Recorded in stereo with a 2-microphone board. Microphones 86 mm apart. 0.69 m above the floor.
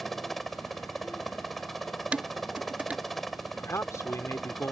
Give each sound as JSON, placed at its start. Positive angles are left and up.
{"t": 0.0, "sound": "a helicopter", "side_deg": 0}
{"t": 2.1, "sound": "dishes clattering", "side_deg": -15}
{"t": 3.6, "sound": "a man speaking", "side_deg": 35}